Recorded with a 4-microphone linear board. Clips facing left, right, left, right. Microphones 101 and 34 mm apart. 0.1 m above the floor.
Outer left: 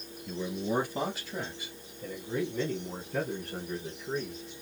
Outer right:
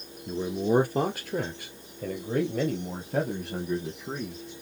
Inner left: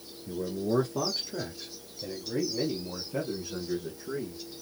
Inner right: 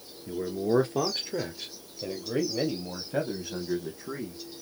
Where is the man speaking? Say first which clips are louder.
Outer right 7 dB, inner right 3 dB; 30° right (ahead or behind), 1.2 m; by 4.4 s 75° right (ahead or behind), 4 m.